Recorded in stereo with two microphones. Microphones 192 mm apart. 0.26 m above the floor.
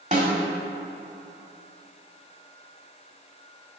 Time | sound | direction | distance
0.1 | a snare drum | 35° right (ahead or behind) | 1.4 m